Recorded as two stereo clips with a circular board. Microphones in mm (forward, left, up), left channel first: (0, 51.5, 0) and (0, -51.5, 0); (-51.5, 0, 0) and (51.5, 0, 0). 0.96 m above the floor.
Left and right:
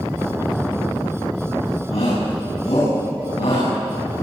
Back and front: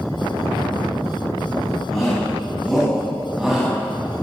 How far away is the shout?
About 10 m.